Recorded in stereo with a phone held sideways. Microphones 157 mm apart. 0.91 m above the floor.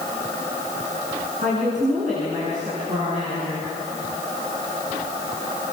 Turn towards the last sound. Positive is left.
turn(degrees=-45)  # may be behind; listen again after turning